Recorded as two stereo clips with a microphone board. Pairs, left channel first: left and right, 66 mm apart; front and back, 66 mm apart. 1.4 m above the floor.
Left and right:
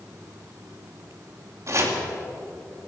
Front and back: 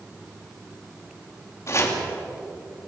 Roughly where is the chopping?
Ahead right.